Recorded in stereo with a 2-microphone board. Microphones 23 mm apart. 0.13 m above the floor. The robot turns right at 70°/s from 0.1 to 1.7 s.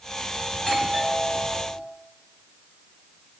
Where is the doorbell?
140° left, 2.5 m; by 1.9 s 140° right, 2.5 m.